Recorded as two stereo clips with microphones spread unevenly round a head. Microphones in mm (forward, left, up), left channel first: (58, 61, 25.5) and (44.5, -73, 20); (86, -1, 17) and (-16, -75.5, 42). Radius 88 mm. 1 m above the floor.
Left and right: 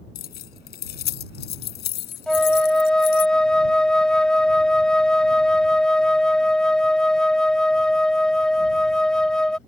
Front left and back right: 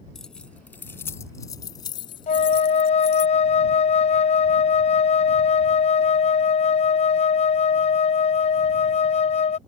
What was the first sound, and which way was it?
Keys jangling, 125° left.